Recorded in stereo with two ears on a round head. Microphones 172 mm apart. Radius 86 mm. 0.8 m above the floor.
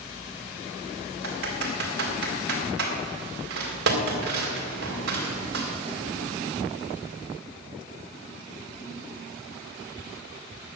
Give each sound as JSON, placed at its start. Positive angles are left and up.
{"t": 1.2, "sound": "typing on a keyboard", "side_deg": -55, "distance_m": 4.0}